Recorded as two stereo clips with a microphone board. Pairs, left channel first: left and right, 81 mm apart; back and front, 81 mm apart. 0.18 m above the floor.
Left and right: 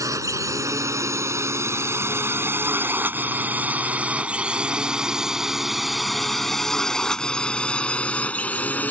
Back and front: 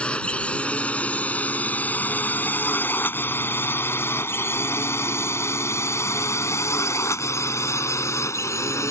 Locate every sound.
0.0 s a drone: 110° right; by 8.9 s 150° left